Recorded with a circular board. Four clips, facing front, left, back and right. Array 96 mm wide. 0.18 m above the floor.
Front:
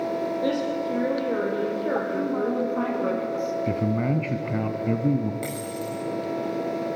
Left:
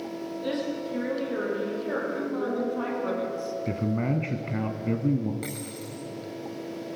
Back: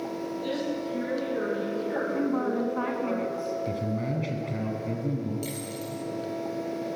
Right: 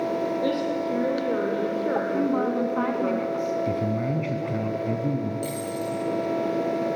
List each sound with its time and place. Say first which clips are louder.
0.4 s a woman speaking: right 5 dB, front 3 dB; 45° right, 7 m
2.1 s a woman speaking: right 5 dB, front 2 dB; 100° right, 2 m
3.7 s a man speaking: right 2 dB, front 5 dB; 25° left, 1.4 m
5.4 s a dropped coin: right 8 dB, front 4 dB; 35° left, 6 m